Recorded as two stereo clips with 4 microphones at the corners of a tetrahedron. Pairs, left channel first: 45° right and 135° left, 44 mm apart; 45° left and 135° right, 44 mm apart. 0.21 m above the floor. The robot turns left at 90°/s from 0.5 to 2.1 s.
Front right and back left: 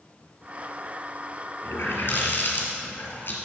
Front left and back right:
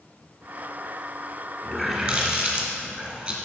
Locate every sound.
1.6 s a running tap: 35° right, 2 m; by 3.4 s 80° right, 2 m